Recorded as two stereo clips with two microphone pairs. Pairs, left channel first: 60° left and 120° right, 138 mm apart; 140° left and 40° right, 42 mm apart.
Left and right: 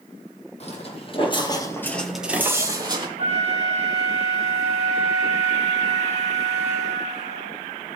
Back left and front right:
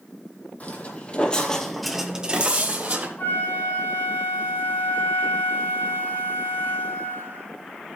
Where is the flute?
95° left, 5 m.